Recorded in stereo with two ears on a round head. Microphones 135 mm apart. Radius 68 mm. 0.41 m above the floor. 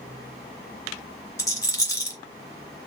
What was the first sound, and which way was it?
A rattle, 20° left (ahead or behind).